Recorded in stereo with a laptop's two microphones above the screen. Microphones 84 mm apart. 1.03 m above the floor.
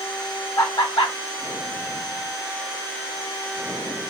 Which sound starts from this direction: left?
Laughter, at 0.6 s.